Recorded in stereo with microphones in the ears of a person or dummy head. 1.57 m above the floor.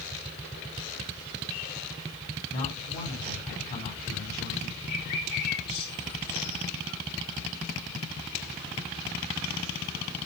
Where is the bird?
60° left (ahead or behind), 2.5 m.